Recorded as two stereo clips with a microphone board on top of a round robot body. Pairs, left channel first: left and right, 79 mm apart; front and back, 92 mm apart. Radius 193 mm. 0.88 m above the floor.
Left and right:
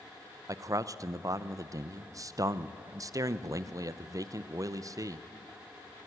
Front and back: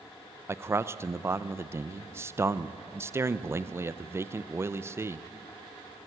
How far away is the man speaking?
About 0.9 m.